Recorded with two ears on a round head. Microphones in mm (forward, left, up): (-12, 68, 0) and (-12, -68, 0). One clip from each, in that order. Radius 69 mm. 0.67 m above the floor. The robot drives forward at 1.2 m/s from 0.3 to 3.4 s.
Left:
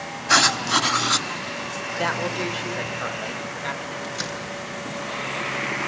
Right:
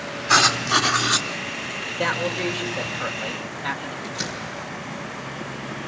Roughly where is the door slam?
Left.